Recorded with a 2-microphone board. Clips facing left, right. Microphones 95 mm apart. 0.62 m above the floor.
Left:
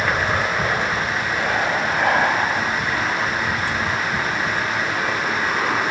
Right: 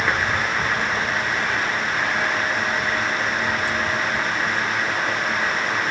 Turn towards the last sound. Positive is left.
turn(degrees=75)  # may be behind; listen again after turning